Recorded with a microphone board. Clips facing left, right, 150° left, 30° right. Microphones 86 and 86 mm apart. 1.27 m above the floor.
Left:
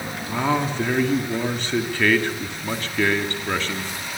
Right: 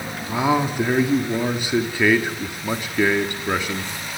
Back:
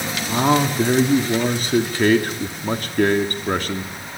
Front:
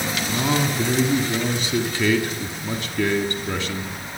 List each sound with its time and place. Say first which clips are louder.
0.3 s a man speaking: right 2 dB, back 6 dB; 170° right, 3 m